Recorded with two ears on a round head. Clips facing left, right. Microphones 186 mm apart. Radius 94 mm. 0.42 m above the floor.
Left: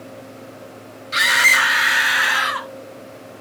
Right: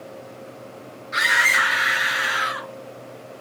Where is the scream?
45° left (ahead or behind), 2.5 m; by 2.7 s 75° left (ahead or behind), 3.5 m.